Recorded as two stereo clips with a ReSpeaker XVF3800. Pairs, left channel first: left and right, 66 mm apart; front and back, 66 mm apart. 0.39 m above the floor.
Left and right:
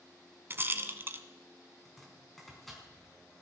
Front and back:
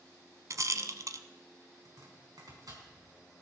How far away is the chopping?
About 4 m.